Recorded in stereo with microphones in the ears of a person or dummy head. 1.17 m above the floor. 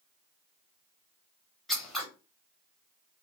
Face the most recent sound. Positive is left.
turn(degrees=5)  # may be behind; listen again after turning